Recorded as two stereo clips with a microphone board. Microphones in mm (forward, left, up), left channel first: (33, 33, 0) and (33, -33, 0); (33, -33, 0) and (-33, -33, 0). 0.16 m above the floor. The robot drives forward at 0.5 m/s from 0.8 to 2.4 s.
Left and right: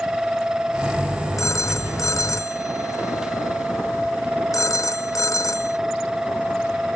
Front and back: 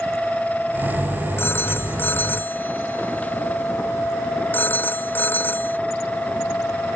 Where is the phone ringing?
55° left; by 5.8 s 60° left.